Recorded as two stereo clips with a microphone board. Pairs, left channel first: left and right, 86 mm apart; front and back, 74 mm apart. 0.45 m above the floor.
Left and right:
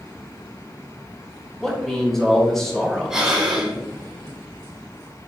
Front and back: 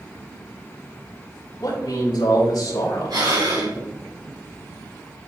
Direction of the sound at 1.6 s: 5° left.